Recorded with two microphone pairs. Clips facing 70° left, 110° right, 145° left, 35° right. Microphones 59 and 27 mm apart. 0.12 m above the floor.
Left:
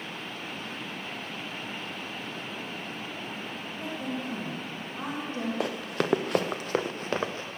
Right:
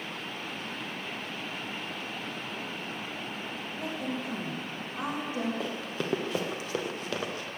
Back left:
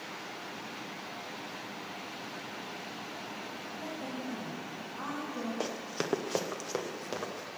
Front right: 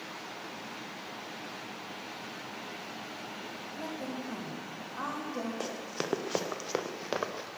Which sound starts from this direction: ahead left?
Running footsteps, at 5.6 s.